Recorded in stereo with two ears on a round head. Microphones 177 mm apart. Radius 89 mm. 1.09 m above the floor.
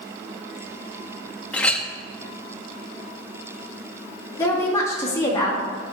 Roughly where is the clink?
Centre.